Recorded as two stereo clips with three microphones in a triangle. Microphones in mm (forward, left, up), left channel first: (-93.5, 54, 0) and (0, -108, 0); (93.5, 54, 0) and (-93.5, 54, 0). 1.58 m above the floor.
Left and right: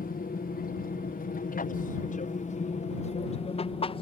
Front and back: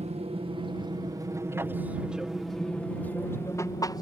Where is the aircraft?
135° left; by 4.0 s 65° left.